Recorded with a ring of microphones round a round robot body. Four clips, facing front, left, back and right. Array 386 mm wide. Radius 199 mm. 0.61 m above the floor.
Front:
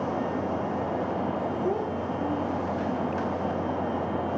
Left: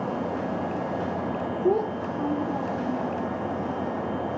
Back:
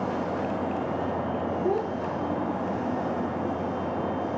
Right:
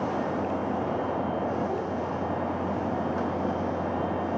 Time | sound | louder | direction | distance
1.6 | a child speaking | left 5 dB, back 1 dB | 100° left | 1.7 m